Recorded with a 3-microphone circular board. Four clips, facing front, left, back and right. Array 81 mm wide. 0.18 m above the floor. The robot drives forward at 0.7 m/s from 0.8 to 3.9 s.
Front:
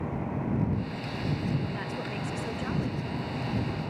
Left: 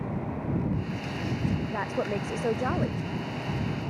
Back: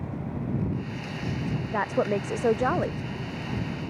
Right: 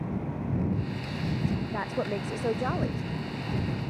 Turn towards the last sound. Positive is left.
turn(degrees=175)